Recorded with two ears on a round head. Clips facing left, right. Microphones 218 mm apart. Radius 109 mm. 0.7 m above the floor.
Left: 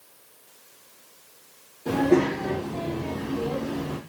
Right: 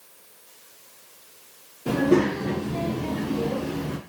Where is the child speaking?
10° right (ahead or behind), 0.8 m; by 4.0 s 55° right (ahead or behind), 1.0 m.